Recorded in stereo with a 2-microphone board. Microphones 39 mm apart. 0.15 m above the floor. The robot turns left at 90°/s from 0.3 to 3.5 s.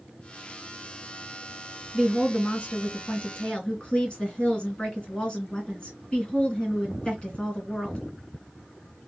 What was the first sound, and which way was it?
A woman speaking, 170° right.